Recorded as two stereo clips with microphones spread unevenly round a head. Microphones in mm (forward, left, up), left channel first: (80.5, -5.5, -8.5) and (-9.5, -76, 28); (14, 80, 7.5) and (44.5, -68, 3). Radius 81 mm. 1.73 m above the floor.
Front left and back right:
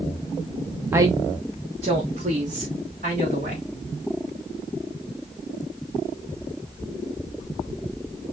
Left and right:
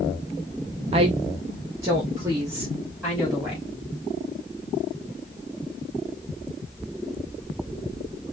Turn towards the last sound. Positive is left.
turn(degrees=-155)